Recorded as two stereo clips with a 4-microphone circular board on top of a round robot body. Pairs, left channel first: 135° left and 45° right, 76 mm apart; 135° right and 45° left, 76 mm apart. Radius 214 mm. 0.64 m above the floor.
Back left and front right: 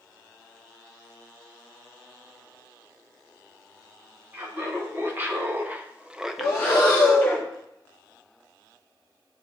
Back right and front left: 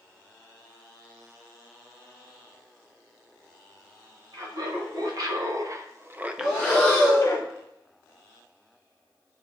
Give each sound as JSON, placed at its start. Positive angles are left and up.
{"t": 4.3, "sound": "laughter", "azimuth_deg": 15, "distance_m": 1.9}
{"t": 6.4, "sound": "breathing", "azimuth_deg": 120, "distance_m": 0.6}